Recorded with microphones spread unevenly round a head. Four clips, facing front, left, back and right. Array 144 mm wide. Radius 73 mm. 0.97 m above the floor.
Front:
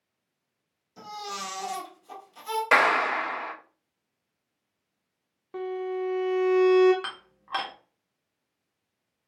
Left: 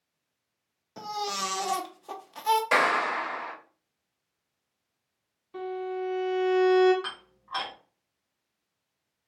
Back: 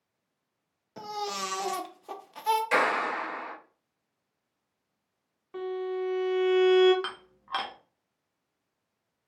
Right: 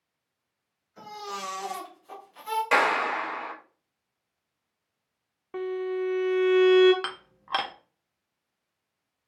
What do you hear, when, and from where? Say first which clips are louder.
1.0 s a baby crying: left 5 dB, back 3 dB; 130° left, 0.6 m
2.7 s a clap: right 1 dB, front 4 dB; 5° left, 0.9 m
5.5 s a violin: right 3 dB, front 1 dB; 55° right, 0.5 m
7.0 s dishes clattering: right 4 dB, even; 70° right, 0.6 m